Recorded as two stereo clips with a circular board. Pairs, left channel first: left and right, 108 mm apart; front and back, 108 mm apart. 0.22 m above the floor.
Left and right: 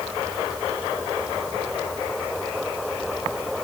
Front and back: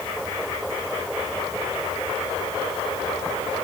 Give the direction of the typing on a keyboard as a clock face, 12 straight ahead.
No typing on a keyboard in this recording.